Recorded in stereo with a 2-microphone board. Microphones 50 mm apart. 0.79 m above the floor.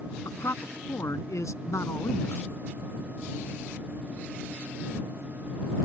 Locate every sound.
0.2 s a man speaking: 80° left